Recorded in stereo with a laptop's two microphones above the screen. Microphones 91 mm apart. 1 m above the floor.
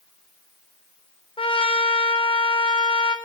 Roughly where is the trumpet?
Left.